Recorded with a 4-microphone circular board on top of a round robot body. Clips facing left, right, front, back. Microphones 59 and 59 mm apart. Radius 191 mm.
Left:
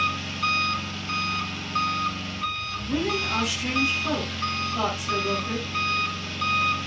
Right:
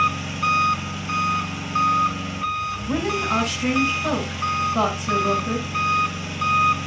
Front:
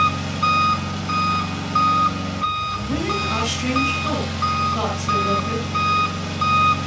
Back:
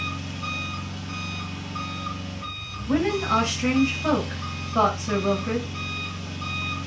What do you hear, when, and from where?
0.0 s an engine running: 15° right, 1.3 m
2.9 s a woman speaking: 125° right, 5.5 m